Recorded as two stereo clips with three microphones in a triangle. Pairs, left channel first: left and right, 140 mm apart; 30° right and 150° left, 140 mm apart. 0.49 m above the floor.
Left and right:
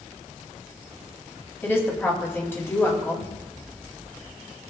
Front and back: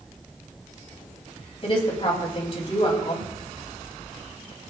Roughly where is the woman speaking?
Ahead.